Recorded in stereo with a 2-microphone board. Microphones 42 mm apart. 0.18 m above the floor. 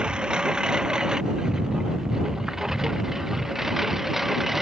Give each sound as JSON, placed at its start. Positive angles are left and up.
{"t": 0.0, "sound": "a lawn mower", "side_deg": -20}